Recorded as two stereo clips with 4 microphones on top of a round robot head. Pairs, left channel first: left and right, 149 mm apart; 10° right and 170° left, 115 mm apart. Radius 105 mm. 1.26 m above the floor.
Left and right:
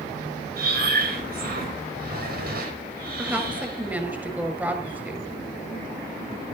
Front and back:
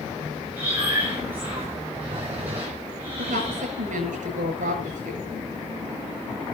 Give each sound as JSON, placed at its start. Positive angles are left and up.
{"t": 0.6, "sound": "breathing", "azimuth_deg": -110, "distance_m": 5.0}
{"t": 3.2, "sound": "a woman speaking", "azimuth_deg": -170, "distance_m": 7.5}